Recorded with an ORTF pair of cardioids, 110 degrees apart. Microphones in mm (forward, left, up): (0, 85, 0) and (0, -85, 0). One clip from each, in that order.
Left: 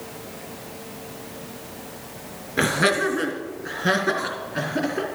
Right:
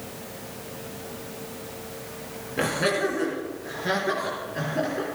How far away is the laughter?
About 2.5 m.